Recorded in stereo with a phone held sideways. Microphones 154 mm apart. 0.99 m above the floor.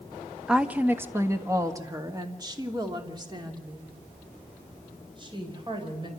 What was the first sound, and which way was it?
A woman speaking, 5° right (ahead or behind).